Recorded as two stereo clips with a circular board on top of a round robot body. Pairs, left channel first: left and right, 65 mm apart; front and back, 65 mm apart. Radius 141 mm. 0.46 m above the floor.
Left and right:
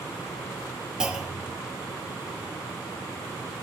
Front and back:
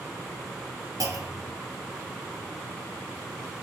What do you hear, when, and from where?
1.0 s a clunk: 165° right, 1.8 m